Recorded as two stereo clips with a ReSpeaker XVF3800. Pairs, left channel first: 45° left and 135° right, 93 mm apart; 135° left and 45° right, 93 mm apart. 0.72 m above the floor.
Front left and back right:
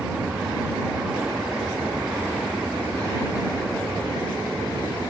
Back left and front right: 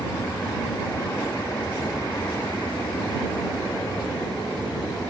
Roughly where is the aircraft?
Behind left.